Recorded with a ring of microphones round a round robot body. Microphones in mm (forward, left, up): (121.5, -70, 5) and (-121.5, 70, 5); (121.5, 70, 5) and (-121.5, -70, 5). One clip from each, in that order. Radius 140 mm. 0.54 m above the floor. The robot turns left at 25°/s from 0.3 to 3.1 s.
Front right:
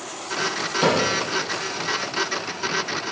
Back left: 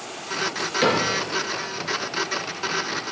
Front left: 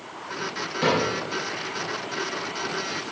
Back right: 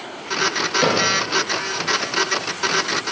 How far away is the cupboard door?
About 3 m.